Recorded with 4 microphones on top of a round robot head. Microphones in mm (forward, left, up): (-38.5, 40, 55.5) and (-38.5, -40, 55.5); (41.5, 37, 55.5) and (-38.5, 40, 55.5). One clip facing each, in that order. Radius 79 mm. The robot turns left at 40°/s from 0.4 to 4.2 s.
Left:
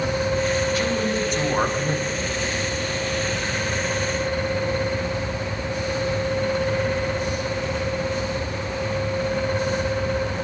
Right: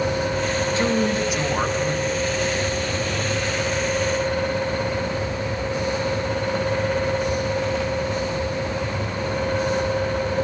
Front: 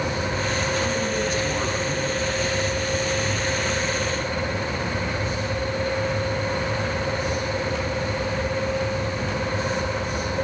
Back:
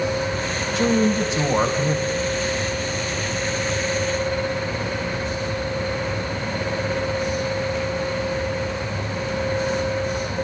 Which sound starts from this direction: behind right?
A man speaking, at 0.8 s.